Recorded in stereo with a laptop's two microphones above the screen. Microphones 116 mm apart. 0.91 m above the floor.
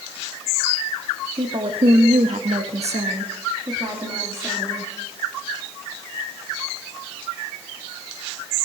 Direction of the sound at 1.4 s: 45° right (ahead or behind).